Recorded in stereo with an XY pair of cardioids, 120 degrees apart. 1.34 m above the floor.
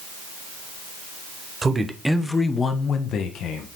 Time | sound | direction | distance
1.6 | a man speaking | 25° right | 1.1 m